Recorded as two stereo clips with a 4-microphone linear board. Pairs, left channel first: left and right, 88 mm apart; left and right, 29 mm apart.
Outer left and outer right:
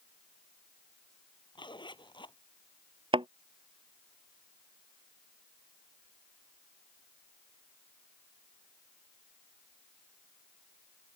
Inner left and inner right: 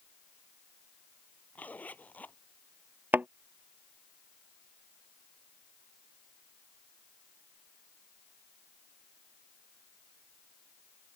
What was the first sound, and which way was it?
A zipper, 55° left (ahead or behind).